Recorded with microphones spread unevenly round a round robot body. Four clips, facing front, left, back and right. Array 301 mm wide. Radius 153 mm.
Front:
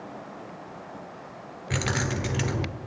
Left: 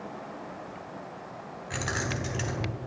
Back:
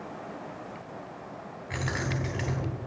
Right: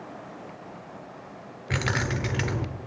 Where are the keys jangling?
55° right, 1.2 m.